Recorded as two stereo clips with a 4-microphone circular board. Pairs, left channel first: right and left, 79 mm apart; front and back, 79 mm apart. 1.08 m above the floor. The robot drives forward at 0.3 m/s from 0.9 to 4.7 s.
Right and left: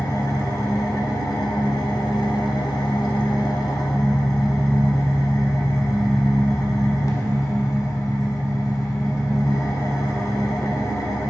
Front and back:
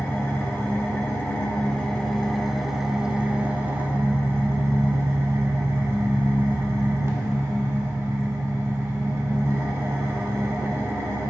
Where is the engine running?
55° right, 0.9 m; by 11.3 s 130° right, 1.0 m.